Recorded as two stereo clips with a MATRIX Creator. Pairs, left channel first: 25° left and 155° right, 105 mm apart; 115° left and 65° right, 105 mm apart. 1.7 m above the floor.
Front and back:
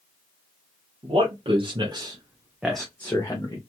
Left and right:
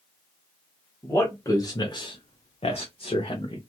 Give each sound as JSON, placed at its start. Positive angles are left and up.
{"t": 1.0, "sound": "a man speaking", "azimuth_deg": 180, "distance_m": 1.0}